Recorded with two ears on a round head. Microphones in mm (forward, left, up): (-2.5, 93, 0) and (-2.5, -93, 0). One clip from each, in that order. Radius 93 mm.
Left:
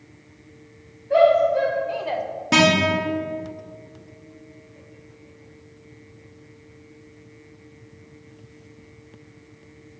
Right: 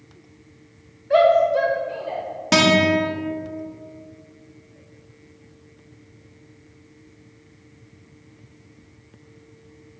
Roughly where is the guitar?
Right.